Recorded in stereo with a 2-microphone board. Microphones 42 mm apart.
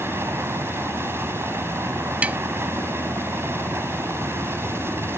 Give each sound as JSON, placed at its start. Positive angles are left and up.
{"t": 0.0, "sound": "a helicopter", "side_deg": -70}
{"t": 2.2, "sound": "tapping", "side_deg": -35}